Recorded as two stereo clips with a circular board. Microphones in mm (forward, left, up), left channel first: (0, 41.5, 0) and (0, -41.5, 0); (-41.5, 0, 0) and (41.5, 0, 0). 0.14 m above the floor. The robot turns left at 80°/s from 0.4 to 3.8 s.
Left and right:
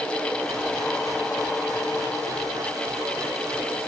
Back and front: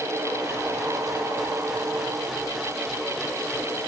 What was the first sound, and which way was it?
Only background noise.